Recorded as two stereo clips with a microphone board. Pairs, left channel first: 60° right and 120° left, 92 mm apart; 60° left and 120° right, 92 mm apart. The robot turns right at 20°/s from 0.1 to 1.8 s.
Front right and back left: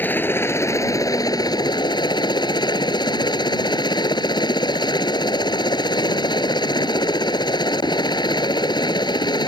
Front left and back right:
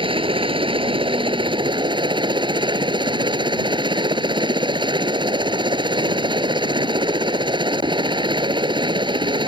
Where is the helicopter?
130° right; by 9.5 s 95° right.